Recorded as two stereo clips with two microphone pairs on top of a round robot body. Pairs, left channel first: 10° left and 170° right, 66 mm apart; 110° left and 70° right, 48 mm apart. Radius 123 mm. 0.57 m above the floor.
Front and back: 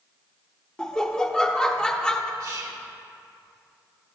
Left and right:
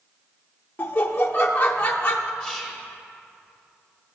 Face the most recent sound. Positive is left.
turn(degrees=-170)